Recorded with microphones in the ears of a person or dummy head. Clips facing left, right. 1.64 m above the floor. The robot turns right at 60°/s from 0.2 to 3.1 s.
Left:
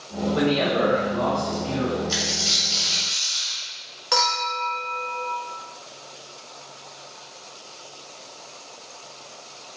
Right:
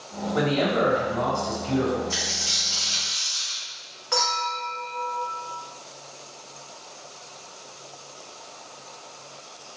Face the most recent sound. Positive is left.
turn(degrees=45)  # may be behind; listen again after turning